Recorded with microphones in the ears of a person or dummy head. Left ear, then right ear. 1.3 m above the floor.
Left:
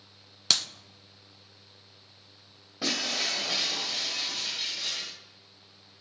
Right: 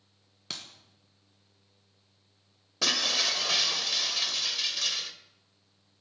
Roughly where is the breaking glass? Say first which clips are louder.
Right 3 dB; right.